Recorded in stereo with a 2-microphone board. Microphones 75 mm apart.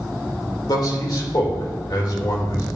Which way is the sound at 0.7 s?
65° left (ahead or behind).